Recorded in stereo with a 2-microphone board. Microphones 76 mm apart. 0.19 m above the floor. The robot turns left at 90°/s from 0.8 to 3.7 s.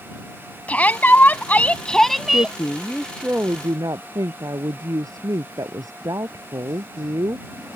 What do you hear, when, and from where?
0.7 s a shout: 20° left (ahead or behind); by 2.6 s 15° right (ahead or behind)
2.3 s a woman speaking: 70° left; by 7.8 s 55° right